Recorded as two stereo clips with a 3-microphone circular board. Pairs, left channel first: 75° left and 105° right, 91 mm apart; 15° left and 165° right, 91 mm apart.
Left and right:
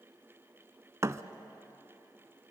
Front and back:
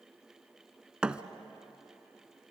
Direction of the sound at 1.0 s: 95° right.